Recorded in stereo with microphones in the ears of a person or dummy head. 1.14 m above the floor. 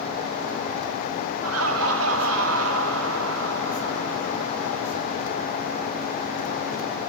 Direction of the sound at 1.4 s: 75° right (ahead or behind).